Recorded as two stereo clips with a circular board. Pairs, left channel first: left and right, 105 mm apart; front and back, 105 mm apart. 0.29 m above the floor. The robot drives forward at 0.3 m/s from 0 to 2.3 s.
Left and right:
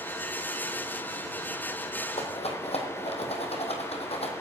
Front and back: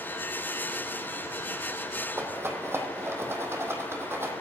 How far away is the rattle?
About 1.8 m.